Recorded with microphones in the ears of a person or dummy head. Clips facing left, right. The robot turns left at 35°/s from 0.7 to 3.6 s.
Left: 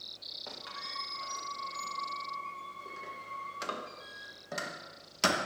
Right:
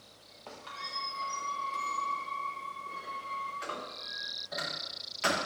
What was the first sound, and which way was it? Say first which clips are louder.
A squeak: right 1 dB; 10° left (ahead or behind).